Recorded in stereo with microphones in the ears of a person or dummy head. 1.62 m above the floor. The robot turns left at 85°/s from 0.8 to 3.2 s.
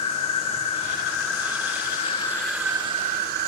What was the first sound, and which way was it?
An insect, 140° left.